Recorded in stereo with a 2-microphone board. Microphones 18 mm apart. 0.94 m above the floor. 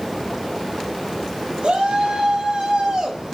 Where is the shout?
65° right (ahead or behind), 6 m; by 3.4 s 35° right (ahead or behind), 5 m.